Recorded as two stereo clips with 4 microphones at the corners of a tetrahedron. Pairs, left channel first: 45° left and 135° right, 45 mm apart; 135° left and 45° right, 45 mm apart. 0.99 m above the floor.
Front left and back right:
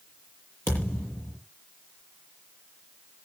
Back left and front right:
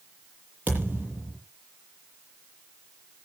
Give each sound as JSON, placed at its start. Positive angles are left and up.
{"t": 0.7, "sound": "a thud", "azimuth_deg": 10, "distance_m": 9.0}